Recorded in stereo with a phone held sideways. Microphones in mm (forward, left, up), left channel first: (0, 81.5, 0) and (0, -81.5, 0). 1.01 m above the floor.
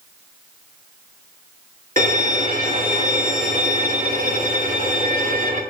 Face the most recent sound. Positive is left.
turn(degrees=-60)  # may be behind; listen again after turning